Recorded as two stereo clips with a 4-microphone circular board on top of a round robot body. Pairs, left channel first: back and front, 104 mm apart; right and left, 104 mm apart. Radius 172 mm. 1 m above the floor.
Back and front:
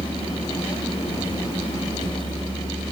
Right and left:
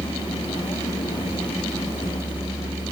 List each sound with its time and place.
0.0 s a vehicle: 135° right